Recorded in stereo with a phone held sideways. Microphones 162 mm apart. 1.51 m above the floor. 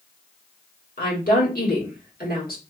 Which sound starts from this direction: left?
A woman speaking, at 1.0 s.